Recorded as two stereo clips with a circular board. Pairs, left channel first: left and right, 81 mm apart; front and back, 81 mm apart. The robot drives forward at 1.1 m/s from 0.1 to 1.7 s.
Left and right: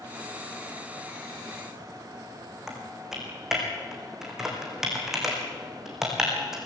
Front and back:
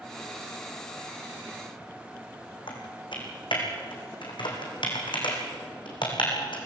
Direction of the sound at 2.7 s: 5° right.